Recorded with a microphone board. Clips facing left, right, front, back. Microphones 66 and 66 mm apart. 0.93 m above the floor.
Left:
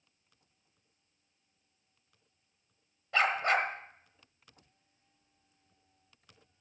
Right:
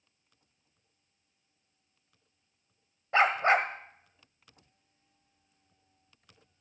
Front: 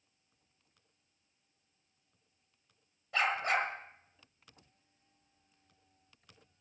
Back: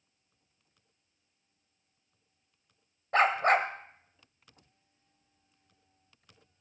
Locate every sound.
3.1 s a dog barking: 150° right, 1.4 m